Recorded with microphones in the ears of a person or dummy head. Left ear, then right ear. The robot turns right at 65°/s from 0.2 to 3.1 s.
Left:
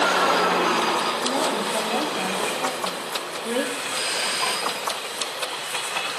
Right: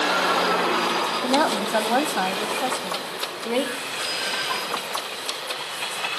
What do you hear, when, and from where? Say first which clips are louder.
1.2 s a woman speaking: right 2 dB; 135° right, 0.7 m; by 3.8 s 15° right, 0.7 m
3.9 s a doorbell: left 1 dB; 80° left, 5.5 m